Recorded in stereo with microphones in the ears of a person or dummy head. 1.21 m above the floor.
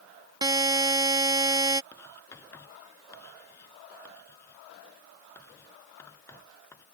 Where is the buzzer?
15° right (ahead or behind).